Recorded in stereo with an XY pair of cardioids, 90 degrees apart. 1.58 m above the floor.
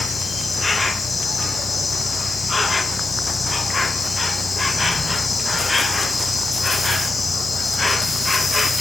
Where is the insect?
20° left, 1.2 m.